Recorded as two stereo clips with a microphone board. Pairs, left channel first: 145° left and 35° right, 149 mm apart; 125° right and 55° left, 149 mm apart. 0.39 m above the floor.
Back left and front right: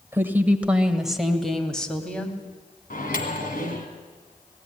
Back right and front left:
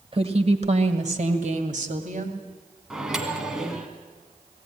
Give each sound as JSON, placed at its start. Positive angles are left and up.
{"t": 0.1, "sound": "a woman speaking", "azimuth_deg": 35, "distance_m": 1.5}
{"t": 2.9, "sound": "a microwave", "azimuth_deg": 140, "distance_m": 2.0}